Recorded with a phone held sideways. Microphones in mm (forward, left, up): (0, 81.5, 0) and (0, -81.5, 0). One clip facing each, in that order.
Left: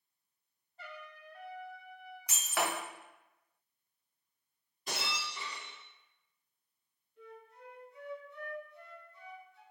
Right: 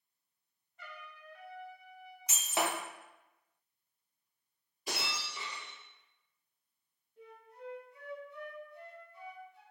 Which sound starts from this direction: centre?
Breaking glass, at 4.9 s.